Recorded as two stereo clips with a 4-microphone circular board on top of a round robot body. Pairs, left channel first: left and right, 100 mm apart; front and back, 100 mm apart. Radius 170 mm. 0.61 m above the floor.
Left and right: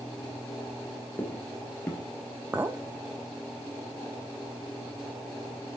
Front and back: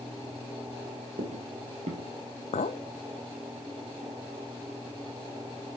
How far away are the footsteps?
About 1.1 m.